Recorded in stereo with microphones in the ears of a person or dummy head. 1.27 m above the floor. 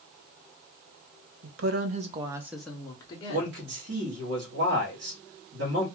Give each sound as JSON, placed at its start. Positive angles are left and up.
{"t": 1.4, "sound": "a woman speaking", "side_deg": -70, "distance_m": 0.7}
{"t": 3.3, "sound": "a man speaking", "side_deg": -65, "distance_m": 1.0}